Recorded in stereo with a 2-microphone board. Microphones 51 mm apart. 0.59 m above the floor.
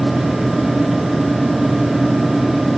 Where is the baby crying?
I don't hear a baby crying.